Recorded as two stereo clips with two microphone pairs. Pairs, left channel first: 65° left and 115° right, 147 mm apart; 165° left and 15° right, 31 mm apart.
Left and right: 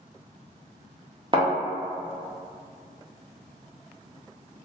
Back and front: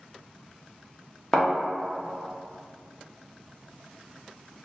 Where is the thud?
135° right, 0.7 m.